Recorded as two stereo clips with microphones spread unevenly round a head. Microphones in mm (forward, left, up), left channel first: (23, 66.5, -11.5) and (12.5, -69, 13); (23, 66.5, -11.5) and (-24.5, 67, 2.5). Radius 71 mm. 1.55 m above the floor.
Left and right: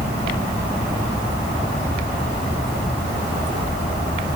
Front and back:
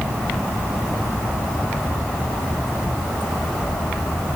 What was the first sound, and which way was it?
Only background noise.